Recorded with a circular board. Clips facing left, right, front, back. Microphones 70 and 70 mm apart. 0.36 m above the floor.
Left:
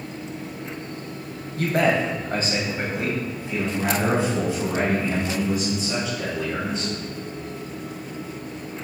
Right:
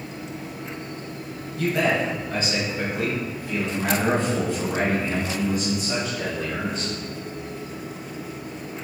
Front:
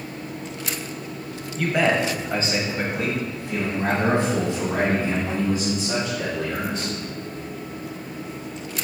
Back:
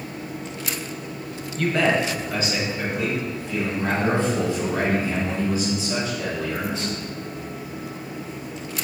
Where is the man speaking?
85° left, 1.5 m; by 6.9 s 5° right, 4 m.